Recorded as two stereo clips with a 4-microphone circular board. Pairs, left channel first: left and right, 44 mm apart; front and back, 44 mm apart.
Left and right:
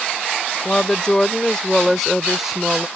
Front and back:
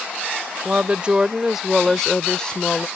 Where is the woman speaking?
140° left; by 2.9 s 30° right.